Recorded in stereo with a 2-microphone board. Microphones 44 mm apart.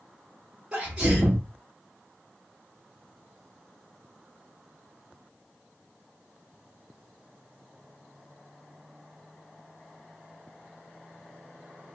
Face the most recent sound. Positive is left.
turn(degrees=-15)  # may be behind; listen again after turning